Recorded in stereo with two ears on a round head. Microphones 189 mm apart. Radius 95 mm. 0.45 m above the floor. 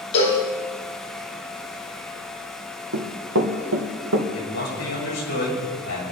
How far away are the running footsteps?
About 2.5 m.